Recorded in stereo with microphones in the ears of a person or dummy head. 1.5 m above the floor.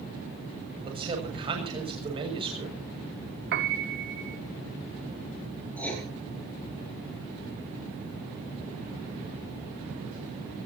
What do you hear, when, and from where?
0.8 s a man speaking: 30° right (ahead or behind), 7.5 m
3.5 s a piano: 60° right (ahead or behind), 1.7 m
5.8 s writing: 10° left (ahead or behind), 9 m